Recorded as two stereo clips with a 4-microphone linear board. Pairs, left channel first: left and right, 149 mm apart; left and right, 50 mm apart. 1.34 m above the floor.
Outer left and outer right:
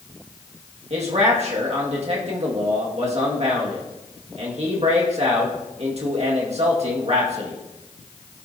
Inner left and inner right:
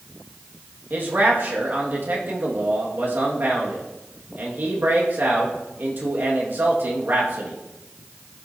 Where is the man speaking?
50° right (ahead or behind), 1.7 m.